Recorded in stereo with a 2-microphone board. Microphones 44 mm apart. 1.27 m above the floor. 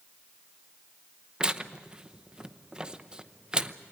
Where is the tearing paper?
15° right (ahead or behind), 0.8 m.